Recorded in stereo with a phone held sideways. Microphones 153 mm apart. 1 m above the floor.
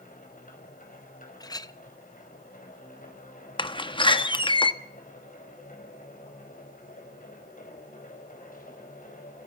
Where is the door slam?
35° left (ahead or behind), 1.1 m.